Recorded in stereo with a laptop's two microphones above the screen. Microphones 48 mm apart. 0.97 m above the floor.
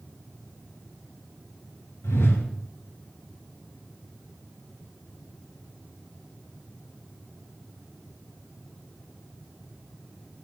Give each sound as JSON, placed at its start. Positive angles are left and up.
{"t": 2.0, "sound": "a whoosh", "side_deg": 70, "distance_m": 2.5}